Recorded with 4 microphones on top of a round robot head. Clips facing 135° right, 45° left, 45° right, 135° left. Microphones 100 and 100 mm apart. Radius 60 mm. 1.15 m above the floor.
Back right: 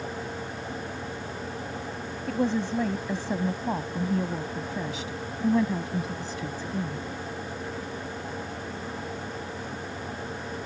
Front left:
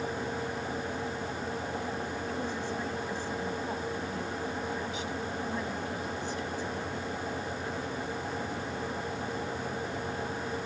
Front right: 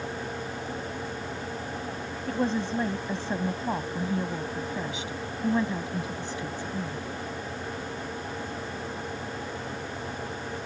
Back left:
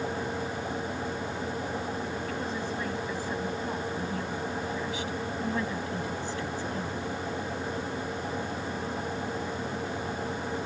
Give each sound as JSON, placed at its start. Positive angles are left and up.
{"t": 2.3, "sound": "a woman speaking", "azimuth_deg": -105}